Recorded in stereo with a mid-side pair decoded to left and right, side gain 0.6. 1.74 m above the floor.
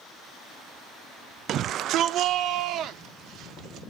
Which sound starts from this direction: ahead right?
A shout, at 1.5 s.